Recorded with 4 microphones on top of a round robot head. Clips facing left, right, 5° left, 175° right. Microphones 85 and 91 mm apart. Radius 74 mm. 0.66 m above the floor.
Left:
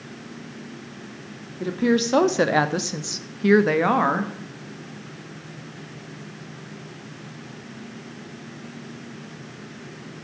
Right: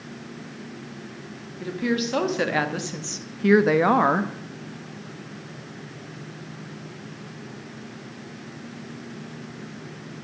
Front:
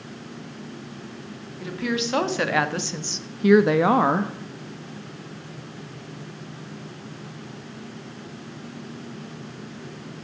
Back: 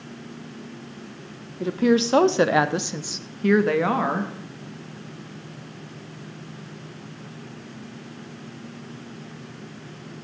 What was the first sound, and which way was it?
A woman speaking, 140° left.